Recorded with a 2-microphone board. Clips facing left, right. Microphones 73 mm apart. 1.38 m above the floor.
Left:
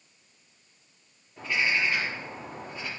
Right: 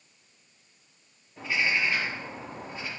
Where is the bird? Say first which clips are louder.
Even; 10° right (ahead or behind), 4 m.